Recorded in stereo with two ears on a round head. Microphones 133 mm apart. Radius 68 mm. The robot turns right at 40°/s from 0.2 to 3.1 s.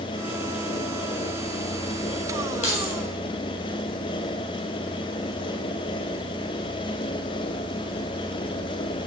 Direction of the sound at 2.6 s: 50° left (ahead or behind).